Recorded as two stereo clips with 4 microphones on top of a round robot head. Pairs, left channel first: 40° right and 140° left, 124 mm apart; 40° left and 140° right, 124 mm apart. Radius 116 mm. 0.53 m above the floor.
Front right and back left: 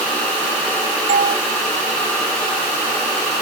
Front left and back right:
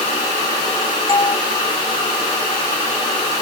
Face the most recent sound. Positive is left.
turn(degrees=100)